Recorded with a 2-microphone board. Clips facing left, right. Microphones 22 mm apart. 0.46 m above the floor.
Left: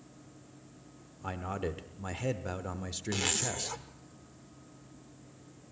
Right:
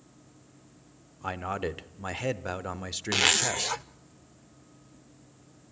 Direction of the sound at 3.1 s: 50° right (ahead or behind).